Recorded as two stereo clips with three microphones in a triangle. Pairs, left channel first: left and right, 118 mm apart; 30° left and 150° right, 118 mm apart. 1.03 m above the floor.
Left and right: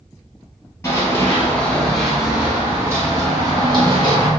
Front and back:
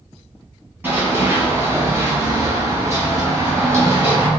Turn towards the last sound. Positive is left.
turn(degrees=-90)